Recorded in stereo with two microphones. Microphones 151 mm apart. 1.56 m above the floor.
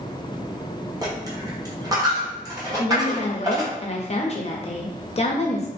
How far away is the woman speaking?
About 0.6 m.